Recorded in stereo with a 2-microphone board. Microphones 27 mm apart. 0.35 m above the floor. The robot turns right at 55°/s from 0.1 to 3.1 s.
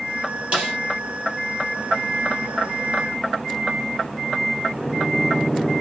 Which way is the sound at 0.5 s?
50° right (ahead or behind).